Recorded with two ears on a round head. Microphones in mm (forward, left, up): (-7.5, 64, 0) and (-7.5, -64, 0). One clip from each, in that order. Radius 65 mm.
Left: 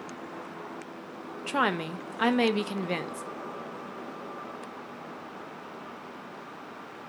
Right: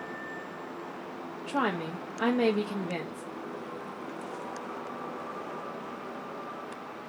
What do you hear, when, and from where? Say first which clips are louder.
1.5 s a woman speaking: left 3 dB; 55° left (ahead or behind), 0.5 m